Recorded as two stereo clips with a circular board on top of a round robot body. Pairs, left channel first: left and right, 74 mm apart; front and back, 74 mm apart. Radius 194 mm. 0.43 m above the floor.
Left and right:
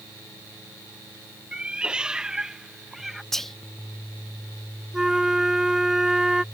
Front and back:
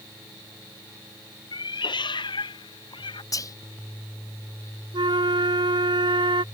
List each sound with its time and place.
1.5 s a cat meowing: 15° right; by 3.2 s straight ahead
3.3 s whispering: 5° left
4.9 s a flute: 175° right